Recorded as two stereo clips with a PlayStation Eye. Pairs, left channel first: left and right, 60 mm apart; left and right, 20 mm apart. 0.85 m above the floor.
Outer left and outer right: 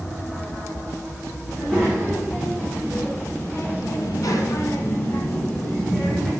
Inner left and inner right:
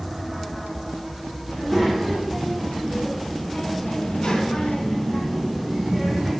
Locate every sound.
1.5 s a child speaking: 25° left (ahead or behind), 1.9 m; by 6.3 s 10° left (ahead or behind), 1.4 m